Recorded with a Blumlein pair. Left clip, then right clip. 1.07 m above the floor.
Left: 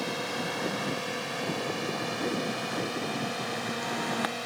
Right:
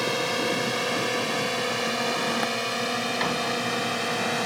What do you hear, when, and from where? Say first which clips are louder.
0.0 s a drone: right 7 dB; 20° right